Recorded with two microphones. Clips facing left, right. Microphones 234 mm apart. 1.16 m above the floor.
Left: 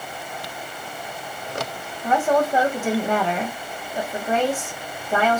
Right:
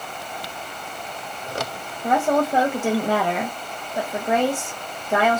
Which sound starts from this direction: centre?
A woman speaking, at 2.0 s.